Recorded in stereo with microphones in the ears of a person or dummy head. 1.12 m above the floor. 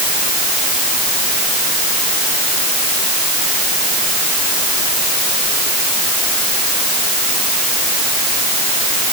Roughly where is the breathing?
I don't hear breathing.